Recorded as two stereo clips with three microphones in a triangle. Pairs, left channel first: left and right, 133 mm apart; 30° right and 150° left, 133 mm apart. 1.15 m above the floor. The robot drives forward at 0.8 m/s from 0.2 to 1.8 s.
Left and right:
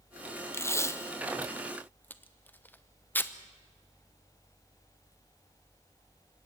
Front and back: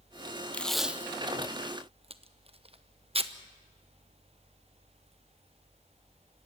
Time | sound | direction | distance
0.5 | tape being pulled | 35° left | 0.8 m